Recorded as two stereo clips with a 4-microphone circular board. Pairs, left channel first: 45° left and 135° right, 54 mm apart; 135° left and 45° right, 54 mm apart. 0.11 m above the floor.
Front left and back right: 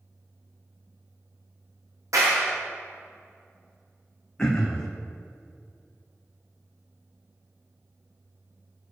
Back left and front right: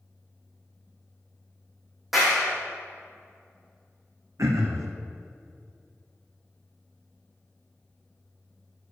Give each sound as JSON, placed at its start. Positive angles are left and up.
{"t": 2.1, "sound": "a clap", "azimuth_deg": -130, "distance_m": 4.0}
{"t": 4.4, "sound": "throat clearing", "azimuth_deg": -35, "distance_m": 1.7}